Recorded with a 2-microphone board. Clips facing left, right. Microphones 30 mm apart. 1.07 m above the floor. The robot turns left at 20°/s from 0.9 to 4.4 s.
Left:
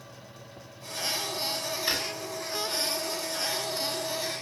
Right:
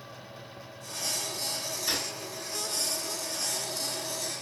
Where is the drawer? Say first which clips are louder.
Left 2 dB; 40° left (ahead or behind), 1.8 m; by 2.0 s 35° left (ahead or behind), 1.8 m.